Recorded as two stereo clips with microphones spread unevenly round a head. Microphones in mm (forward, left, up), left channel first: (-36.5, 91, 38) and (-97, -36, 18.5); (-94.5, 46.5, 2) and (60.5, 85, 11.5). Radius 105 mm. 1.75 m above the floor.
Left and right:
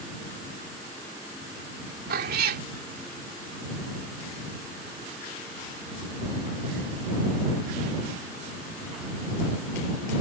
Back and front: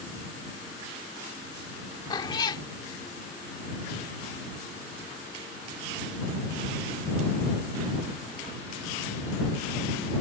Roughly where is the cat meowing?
Right.